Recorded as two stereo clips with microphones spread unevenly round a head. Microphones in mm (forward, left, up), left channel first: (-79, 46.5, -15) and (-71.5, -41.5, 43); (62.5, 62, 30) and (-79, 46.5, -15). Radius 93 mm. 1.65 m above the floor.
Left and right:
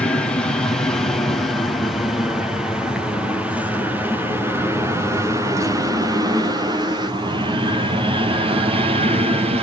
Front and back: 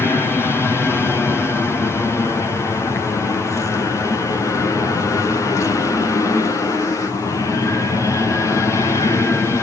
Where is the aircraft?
90° left; by 9.6 s 80° right.